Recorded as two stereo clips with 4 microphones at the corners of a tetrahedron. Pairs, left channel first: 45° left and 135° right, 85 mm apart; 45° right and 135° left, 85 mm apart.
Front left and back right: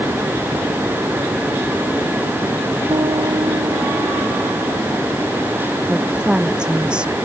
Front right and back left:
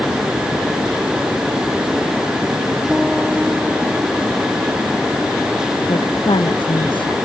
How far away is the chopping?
No chopping in this recording.